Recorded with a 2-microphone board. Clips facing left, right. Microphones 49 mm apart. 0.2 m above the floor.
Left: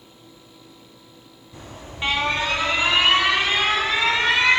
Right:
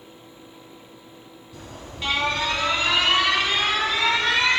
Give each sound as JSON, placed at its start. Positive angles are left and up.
{"t": 1.5, "sound": "an alarm", "side_deg": 30, "distance_m": 1.4}